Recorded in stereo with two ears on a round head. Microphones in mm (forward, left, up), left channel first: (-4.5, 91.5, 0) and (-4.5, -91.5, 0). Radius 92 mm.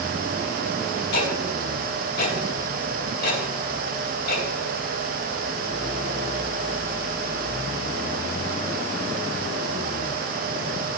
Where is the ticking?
50° left (ahead or behind), 4 m.